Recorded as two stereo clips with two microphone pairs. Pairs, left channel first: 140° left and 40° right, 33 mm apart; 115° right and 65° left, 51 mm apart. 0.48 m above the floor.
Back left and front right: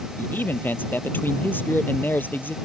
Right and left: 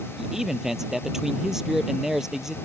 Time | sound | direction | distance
0.2 | a man speaking | 145° left | ?